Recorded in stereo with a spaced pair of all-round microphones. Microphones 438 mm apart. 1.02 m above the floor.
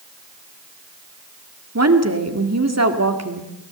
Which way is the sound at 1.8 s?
35° right (ahead or behind).